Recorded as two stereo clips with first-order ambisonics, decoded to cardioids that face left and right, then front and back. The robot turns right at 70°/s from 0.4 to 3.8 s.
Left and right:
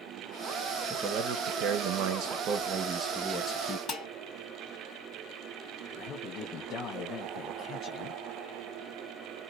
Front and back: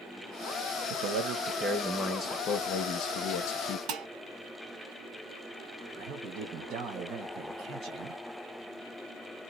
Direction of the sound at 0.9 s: 160° right.